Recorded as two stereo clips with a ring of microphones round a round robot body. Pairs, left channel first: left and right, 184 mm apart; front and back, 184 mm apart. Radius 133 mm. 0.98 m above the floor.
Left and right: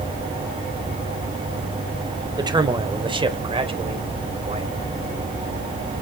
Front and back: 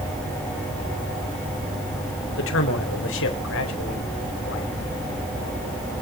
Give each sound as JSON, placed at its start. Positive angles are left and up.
{"t": 2.4, "sound": "a man speaking", "azimuth_deg": -20, "distance_m": 3.5}